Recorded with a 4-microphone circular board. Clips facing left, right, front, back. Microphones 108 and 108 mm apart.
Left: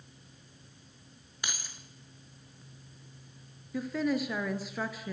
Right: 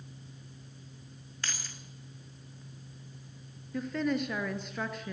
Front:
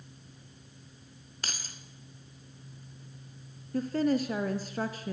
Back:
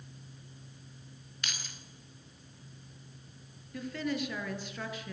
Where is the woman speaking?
10° left, 1.6 m.